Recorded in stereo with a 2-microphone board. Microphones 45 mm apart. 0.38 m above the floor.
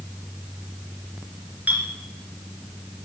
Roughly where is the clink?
Right.